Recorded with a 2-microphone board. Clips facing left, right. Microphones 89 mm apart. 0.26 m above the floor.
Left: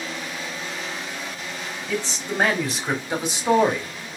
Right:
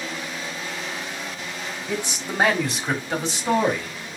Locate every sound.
1.9 s a man speaking: 15° right (ahead or behind), 1.3 m; by 4.2 s 35° left (ahead or behind), 1.5 m